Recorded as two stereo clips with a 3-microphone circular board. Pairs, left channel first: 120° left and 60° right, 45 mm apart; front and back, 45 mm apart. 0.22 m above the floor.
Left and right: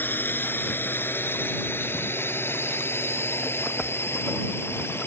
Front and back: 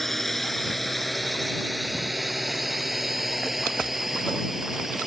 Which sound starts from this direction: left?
A drone, at 0.0 s.